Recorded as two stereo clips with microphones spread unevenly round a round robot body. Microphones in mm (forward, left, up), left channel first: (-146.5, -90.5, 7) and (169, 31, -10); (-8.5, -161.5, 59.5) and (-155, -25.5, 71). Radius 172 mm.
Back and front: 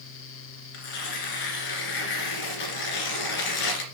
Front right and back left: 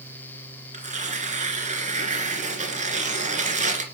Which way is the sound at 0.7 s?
175° right.